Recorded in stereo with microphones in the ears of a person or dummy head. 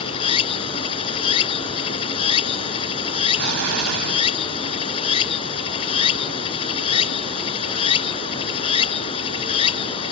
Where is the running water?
30° left (ahead or behind).